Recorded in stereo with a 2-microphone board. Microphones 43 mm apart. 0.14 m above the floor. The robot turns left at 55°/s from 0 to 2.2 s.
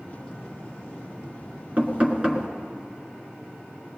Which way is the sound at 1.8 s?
40° right (ahead or behind).